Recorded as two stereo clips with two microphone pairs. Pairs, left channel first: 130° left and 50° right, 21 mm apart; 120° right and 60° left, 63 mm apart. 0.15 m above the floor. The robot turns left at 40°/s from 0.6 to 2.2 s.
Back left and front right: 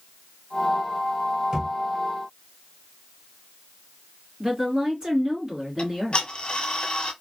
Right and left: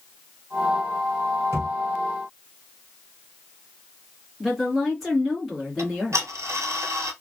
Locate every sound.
1.5 s a thud: 20° left, 1.4 m; by 1.7 s 10° left, 1.4 m
4.4 s a woman speaking: 30° right, 1.8 m
5.8 s ticking: 100° left, 0.6 m